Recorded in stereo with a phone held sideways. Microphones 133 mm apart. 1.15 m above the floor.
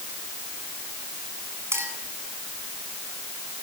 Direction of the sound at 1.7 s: 20° right (ahead or behind).